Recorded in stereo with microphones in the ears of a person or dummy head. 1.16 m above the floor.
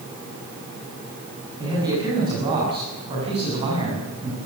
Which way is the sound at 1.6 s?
20° right (ahead or behind).